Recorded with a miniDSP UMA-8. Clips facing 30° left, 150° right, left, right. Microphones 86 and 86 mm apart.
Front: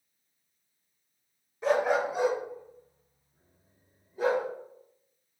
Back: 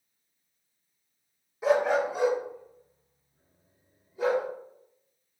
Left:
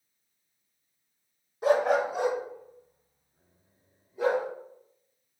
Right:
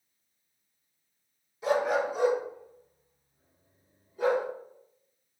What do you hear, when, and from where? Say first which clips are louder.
1.6 s a dog barking: back 2 dB, left 3 dB; 130° left, 0.8 m; by 4.5 s 75° left, 4.5 m